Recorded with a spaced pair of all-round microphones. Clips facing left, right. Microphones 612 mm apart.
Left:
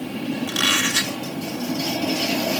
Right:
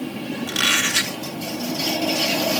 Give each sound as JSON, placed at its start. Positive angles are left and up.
{"t": 0.5, "sound": "a squeak", "side_deg": -50, "distance_m": 1.5}